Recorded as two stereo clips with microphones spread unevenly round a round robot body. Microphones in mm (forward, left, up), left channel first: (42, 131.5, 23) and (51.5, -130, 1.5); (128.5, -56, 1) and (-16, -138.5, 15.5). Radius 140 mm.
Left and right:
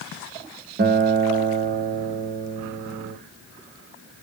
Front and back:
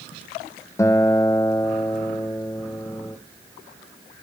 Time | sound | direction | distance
0.8 | a guitar | 40° right | 0.7 m